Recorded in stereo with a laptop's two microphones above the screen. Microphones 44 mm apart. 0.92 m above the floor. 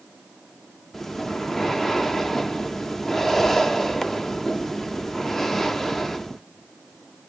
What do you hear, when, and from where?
0.9 s breathing: 5° left (ahead or behind), 0.6 m